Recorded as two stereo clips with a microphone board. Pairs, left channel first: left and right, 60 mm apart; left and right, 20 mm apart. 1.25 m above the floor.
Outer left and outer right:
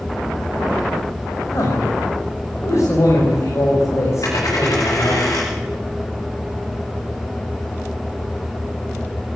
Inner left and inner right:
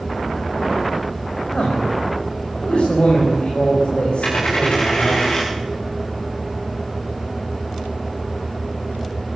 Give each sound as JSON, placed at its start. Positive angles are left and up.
{"t": 1.5, "sound": "a man speaking", "side_deg": 50, "distance_m": 6.5}
{"t": 4.2, "sound": "a dropped coin", "side_deg": 70, "distance_m": 8.5}